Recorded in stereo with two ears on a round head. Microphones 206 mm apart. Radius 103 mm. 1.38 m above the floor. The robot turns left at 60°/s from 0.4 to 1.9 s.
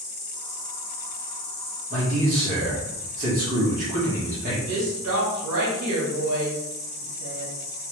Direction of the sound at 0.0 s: 125° left.